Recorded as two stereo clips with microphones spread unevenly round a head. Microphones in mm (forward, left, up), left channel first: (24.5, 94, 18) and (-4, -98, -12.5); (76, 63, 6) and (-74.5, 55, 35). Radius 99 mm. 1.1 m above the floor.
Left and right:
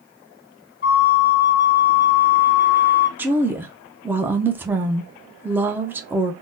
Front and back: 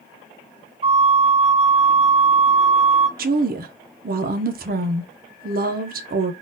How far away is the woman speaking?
About 0.5 m.